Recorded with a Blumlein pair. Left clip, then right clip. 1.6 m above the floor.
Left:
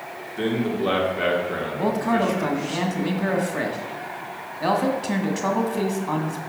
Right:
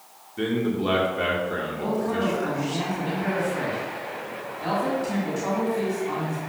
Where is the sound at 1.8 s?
60° left, 1.7 m.